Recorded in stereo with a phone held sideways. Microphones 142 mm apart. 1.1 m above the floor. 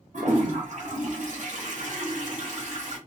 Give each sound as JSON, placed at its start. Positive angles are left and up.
{"t": 0.1, "sound": "a toilet flushing", "side_deg": -60, "distance_m": 0.9}